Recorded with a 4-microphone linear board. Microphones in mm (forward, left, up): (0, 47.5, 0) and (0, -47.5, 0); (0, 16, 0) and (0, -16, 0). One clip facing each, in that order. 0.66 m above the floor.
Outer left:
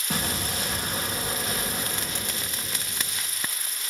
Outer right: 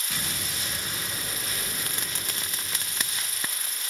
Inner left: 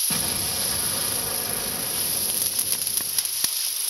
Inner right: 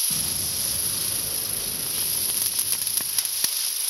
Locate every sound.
0.1 s an explosion: 45° left (ahead or behind), 3 m